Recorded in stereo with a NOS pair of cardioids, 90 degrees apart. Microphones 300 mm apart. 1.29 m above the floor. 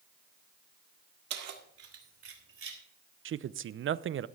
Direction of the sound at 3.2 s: 45° right.